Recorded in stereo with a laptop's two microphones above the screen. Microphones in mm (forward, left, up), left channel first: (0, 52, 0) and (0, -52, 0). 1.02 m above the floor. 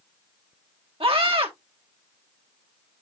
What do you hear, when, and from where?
1.0 s a scream: 65° right (ahead or behind), 2.5 m